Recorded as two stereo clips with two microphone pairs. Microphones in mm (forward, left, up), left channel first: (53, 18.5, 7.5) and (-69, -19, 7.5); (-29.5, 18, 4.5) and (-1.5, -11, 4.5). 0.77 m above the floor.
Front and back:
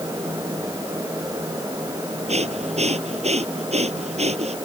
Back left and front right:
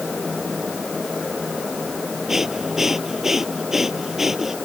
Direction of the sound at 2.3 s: 130° right.